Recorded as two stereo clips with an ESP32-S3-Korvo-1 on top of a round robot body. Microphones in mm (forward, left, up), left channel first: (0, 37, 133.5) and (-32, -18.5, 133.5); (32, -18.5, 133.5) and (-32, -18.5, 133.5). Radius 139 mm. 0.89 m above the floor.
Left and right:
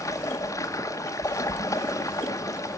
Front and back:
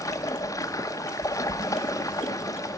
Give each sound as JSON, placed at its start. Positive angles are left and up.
{"t": 0.0, "sound": "running water", "azimuth_deg": 30, "distance_m": 0.9}